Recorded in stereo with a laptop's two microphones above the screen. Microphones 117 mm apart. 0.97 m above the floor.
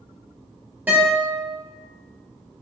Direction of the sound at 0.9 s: 15° right (ahead or behind).